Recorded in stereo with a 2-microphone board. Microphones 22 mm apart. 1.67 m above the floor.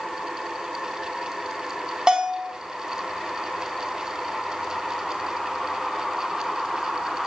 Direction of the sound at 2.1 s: 30° right (ahead or behind).